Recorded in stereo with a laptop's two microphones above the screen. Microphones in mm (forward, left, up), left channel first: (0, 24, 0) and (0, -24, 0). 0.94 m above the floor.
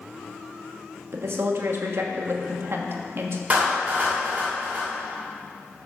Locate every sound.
1.1 s a woman speaking: 60° right (ahead or behind), 1.3 m
3.5 s a clap: 35° right (ahead or behind), 2.5 m